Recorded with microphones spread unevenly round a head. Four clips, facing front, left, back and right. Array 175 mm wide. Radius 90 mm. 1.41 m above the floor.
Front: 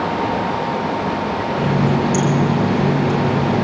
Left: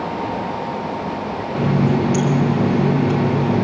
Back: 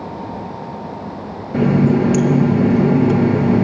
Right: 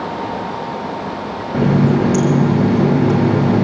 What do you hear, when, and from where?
1.5 s a running tap: 120° right, 0.8 m